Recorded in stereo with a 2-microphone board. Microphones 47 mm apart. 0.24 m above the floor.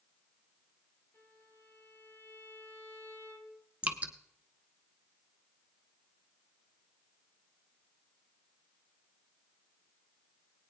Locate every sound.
1.1 s a violin: 55° left (ahead or behind), 4 m
3.8 s dripping: 30° right (ahead or behind), 1.0 m